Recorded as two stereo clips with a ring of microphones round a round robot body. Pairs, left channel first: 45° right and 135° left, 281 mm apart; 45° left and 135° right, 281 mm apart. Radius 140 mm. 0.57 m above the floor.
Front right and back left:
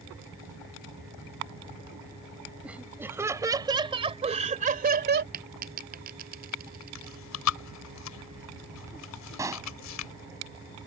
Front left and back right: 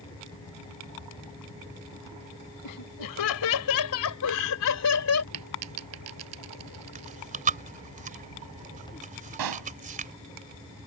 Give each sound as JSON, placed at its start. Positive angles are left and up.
{"t": 2.6, "sound": "laughter", "azimuth_deg": 50}
{"t": 5.3, "sound": "a dropped coin", "azimuth_deg": -170}
{"t": 7.0, "sound": "chewing", "azimuth_deg": -75}
{"t": 9.4, "sound": "a pop", "azimuth_deg": -145}